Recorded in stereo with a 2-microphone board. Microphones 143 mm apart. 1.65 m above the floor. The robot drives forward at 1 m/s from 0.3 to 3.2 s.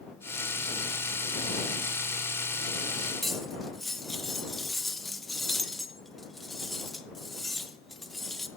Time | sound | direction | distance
3.2 | cutlery clinking | centre (ahead or behind) | 0.8 m